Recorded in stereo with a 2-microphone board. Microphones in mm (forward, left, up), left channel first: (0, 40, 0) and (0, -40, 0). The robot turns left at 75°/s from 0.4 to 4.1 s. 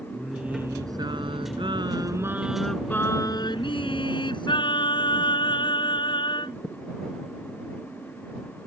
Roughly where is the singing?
Ahead.